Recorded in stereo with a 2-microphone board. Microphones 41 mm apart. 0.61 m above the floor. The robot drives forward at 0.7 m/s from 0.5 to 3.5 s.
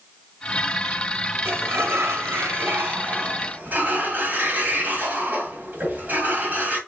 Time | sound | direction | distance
1.4 | a sliding door | 70° right (ahead or behind) | 1.1 m